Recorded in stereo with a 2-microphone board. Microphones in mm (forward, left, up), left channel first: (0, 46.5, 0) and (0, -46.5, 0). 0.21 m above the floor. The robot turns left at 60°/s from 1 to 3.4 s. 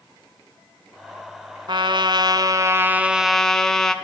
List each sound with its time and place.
1.7 s a trumpet: 80° right, 1.3 m; by 4.0 s 175° left, 1.3 m